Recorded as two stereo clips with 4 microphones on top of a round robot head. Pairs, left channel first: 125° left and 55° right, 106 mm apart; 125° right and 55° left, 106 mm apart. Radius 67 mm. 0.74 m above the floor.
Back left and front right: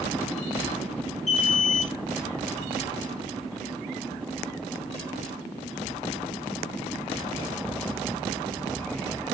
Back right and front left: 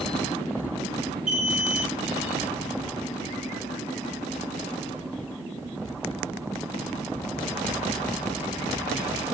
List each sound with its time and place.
1.3 s an alarm: 140° left, 3.5 m